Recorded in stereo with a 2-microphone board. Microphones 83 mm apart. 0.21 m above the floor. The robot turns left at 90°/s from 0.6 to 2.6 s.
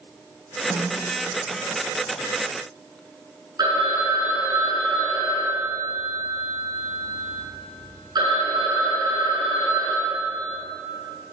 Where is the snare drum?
30° right (ahead or behind), 1.0 m.